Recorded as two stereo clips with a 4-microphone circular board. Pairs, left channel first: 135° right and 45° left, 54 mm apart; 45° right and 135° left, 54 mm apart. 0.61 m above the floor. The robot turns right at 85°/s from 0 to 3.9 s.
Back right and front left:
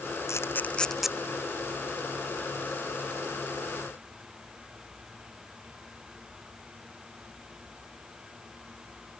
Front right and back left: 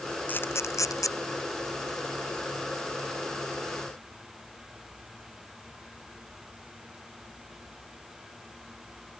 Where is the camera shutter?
105° right; by 1.1 s 35° right.